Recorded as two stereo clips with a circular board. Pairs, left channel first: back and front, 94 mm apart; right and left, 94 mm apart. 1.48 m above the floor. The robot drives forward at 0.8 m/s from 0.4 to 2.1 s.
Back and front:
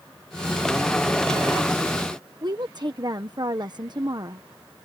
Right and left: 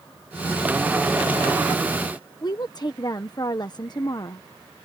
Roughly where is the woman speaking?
Ahead right.